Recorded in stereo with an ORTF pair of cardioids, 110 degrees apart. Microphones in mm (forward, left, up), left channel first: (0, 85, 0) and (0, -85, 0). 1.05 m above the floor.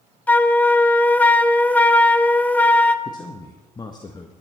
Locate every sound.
0.3 s a flute: 10° left, 0.6 m
3.0 s a man speaking: 25° left, 1.1 m